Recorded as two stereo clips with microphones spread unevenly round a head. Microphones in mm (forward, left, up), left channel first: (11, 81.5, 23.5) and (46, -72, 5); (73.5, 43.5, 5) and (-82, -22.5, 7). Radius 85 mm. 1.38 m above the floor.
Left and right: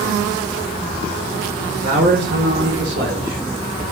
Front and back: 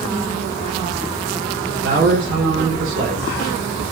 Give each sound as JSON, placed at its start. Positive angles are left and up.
{"t": 1.8, "sound": "a man speaking", "azimuth_deg": -115, "distance_m": 1.9}